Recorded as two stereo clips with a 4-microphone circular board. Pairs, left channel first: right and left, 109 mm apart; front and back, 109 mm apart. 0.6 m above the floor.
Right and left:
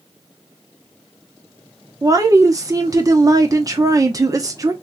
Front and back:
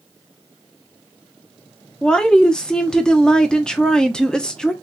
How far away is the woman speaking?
About 0.7 m.